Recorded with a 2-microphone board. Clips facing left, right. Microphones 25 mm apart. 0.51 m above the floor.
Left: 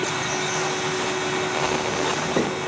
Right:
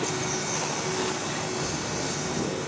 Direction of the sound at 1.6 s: 75° left (ahead or behind).